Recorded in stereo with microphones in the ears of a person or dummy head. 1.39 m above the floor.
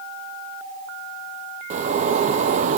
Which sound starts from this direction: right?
A zipper, at 1.7 s.